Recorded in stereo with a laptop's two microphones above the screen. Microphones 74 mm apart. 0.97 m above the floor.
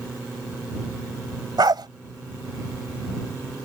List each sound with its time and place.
1.6 s a dog barking: 70° right (ahead or behind)